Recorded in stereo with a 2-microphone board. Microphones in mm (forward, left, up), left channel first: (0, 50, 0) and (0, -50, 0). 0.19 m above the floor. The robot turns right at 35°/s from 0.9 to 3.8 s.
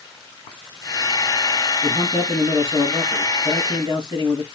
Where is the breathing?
I don't hear breathing.